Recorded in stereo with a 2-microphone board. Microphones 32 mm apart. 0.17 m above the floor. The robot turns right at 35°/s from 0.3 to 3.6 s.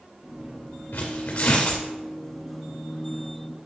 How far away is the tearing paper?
About 3 m.